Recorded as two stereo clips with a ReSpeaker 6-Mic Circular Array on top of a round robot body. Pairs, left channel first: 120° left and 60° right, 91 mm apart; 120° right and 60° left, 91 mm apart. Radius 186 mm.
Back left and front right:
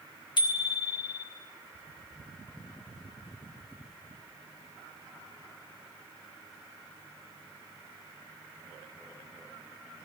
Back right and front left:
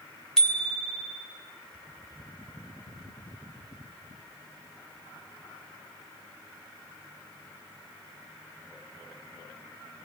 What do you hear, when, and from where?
0.4 s a bicycle bell: 160° left, 3 m